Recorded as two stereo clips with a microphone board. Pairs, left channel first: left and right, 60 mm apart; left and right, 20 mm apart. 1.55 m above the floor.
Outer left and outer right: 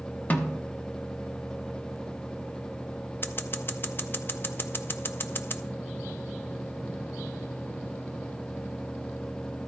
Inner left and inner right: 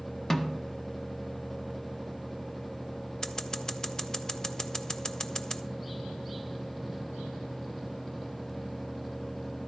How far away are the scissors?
About 0.6 m.